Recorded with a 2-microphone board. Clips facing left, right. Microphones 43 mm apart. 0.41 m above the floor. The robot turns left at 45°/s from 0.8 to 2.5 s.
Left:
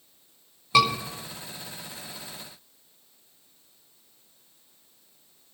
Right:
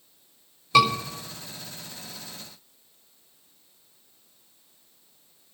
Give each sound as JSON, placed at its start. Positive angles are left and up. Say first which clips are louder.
{"t": 0.7, "sound": "a scream", "louder": "right 2 dB", "side_deg": 15, "distance_m": 4.0}